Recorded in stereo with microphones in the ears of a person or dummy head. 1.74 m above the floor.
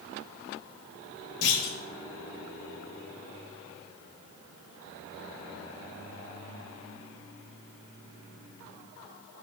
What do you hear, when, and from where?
1.4 s a clunk: 60° left (ahead or behind), 0.8 m